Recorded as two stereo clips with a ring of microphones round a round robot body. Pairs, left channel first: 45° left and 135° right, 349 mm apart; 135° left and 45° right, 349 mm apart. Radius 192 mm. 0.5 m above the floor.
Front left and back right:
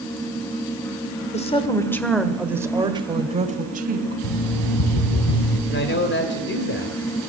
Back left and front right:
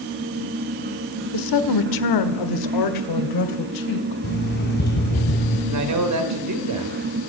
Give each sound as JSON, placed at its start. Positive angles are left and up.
{"t": 1.3, "sound": "a woman speaking", "azimuth_deg": 115, "distance_m": 1.6}
{"t": 4.2, "sound": "an alarm clock", "azimuth_deg": 75, "distance_m": 3.0}
{"t": 5.7, "sound": "a man speaking", "azimuth_deg": -10, "distance_m": 2.5}